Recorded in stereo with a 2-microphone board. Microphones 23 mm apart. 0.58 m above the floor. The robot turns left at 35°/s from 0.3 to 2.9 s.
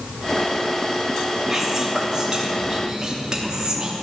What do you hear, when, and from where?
1.5 s whispering: 15° right (ahead or behind), 1.0 m; by 3.9 s 25° right (ahead or behind), 1.0 m